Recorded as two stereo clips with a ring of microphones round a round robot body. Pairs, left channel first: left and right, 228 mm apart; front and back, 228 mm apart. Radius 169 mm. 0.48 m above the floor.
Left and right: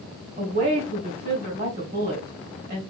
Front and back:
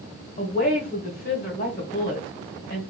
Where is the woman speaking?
50° right, 1.8 m.